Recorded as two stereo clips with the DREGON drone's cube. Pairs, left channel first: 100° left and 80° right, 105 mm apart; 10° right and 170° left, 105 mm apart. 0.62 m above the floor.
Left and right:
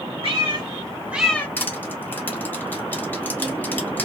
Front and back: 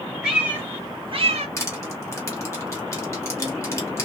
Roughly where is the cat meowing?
Right.